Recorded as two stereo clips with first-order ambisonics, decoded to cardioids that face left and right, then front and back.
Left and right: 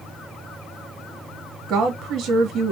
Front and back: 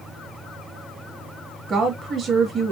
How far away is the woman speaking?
About 1.2 m.